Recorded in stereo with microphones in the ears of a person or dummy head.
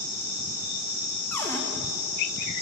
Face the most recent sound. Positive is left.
turn(degrees=15)  # may be behind; listen again after turning